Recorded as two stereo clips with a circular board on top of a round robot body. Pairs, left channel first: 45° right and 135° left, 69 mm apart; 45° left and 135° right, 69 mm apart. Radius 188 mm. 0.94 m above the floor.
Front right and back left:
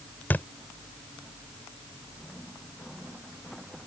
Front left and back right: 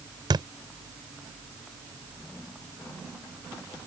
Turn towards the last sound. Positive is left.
turn(degrees=-110)